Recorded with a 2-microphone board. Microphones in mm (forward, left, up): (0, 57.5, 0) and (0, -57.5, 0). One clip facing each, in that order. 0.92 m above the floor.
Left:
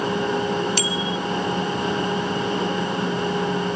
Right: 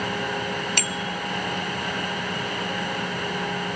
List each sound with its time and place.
0.8 s a bicycle bell: 60° right (ahead or behind)